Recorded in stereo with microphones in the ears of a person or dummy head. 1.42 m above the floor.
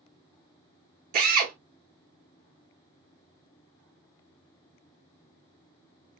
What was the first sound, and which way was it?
A drill, 45° right (ahead or behind).